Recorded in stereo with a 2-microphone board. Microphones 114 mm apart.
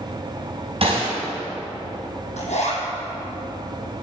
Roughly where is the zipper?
Left.